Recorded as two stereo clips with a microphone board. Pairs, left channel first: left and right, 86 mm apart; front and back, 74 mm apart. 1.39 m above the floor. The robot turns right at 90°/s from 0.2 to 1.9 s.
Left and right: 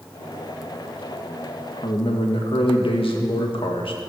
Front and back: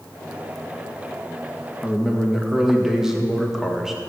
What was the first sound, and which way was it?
A man speaking, 90° left.